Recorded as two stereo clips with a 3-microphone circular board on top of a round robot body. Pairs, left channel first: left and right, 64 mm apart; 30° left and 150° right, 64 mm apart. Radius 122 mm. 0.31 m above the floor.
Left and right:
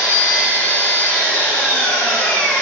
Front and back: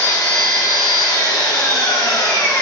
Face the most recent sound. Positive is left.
turn(degrees=20)